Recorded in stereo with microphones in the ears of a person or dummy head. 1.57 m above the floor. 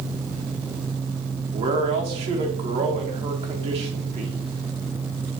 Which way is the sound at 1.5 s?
25° right (ahead or behind).